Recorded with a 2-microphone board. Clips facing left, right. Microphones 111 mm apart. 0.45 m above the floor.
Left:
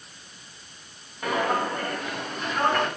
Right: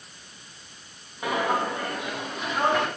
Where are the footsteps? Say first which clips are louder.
Even; 10° right (ahead or behind), 9.5 m; by 2.9 s 5° right (ahead or behind), 8 m.